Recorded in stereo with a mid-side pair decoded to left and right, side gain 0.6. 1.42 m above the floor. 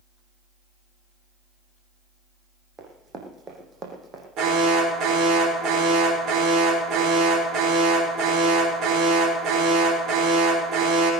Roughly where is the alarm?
Ahead right.